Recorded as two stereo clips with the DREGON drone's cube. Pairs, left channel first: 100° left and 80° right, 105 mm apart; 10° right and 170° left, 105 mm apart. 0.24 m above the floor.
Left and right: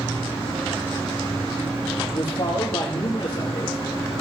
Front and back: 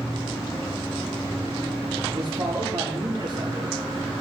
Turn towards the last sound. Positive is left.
turn(degrees=130)